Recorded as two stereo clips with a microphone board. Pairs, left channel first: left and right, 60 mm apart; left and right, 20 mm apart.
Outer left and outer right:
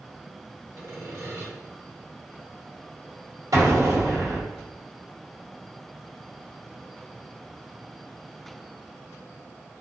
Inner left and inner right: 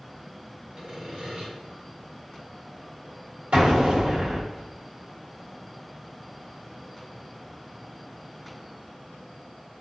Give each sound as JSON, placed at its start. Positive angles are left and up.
{"t": 0.8, "sound": "sawing", "side_deg": -55, "distance_m": 1.8}
{"t": 3.5, "sound": "an explosion", "side_deg": -80, "distance_m": 1.8}